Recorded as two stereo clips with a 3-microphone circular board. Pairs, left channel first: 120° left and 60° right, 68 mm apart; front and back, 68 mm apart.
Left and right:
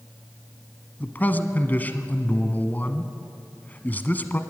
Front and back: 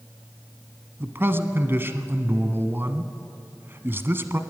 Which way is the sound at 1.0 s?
160° left.